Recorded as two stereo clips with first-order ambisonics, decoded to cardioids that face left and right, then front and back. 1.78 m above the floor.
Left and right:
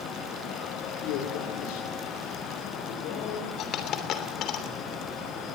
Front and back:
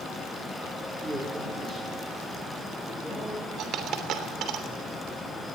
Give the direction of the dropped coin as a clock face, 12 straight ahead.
8 o'clock.